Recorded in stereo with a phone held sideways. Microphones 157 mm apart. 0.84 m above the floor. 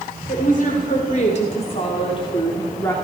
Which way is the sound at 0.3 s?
60° left (ahead or behind).